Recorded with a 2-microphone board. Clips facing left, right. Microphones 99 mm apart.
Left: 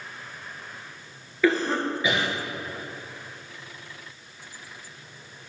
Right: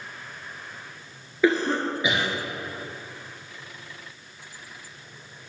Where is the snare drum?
No snare drum in this recording.